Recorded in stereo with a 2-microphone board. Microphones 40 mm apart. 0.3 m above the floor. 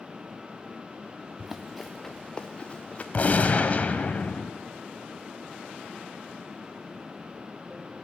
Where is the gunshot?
45° left (ahead or behind), 1.7 m.